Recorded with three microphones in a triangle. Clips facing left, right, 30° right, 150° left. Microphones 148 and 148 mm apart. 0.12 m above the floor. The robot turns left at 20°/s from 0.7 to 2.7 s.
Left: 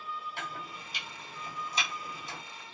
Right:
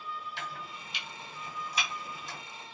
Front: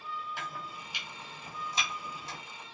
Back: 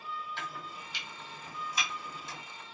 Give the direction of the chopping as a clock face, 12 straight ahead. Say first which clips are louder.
Left 1 dB, front 1 dB; 10 o'clock.